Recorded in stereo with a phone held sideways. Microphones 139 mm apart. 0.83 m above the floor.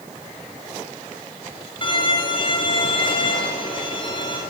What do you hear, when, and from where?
1.8 s a violin: 35° left (ahead or behind), 10 m